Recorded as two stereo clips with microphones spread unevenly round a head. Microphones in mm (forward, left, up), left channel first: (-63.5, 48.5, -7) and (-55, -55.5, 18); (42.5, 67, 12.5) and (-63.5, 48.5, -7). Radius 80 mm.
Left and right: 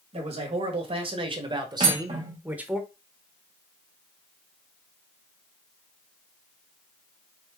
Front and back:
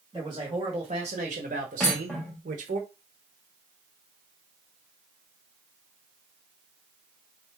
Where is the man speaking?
105° right, 1.8 m; by 2.8 s 165° right, 1.0 m.